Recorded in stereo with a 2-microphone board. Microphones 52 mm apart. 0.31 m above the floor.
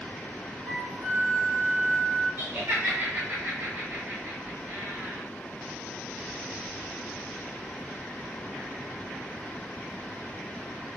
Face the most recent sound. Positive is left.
turn(degrees=-40)  # may be behind; listen again after turning